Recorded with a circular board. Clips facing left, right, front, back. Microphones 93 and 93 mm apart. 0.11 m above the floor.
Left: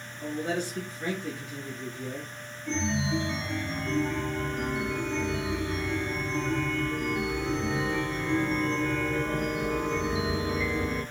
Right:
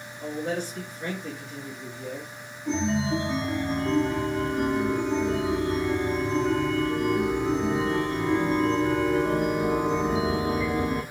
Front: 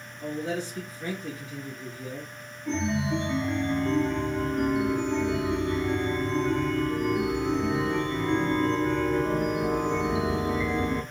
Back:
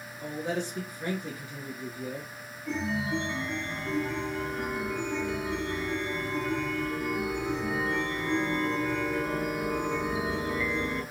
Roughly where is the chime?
Ahead right.